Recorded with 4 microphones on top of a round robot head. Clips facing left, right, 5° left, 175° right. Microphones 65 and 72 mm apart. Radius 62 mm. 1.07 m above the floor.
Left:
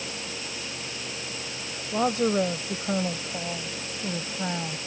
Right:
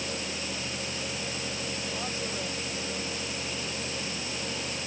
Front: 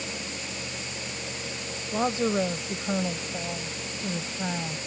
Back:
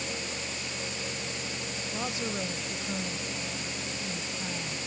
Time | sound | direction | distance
1.9 | a woman speaking | 65° left | ?